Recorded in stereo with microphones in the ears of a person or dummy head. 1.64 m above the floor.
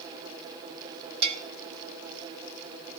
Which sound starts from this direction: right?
A bell, at 1.2 s.